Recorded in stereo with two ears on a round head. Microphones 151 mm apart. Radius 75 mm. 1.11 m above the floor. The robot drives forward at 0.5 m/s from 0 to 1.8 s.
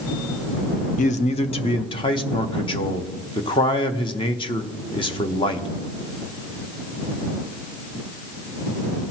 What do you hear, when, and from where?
1.0 s a man speaking: 45° left (ahead or behind), 0.6 m; by 5.7 s 30° left (ahead or behind), 0.9 m